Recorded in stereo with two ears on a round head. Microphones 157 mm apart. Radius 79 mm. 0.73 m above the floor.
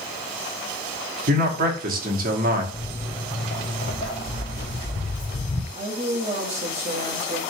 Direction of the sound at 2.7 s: 20° left (ahead or behind).